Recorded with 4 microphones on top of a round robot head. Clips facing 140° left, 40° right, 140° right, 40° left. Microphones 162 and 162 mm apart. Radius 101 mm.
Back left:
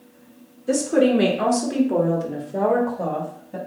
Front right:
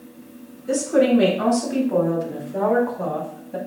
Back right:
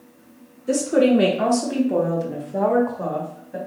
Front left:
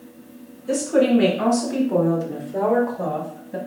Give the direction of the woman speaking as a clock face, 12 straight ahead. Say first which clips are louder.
Even, back right 1 dB; 6 o'clock.